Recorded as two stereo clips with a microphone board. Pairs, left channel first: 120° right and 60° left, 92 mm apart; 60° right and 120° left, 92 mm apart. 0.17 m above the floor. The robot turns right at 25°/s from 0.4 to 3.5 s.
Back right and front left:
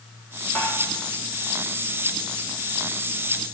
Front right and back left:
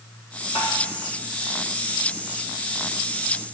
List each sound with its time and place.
0.6 s tapping: 45° right, 8.5 m; by 0.7 s 40° right, 8.5 m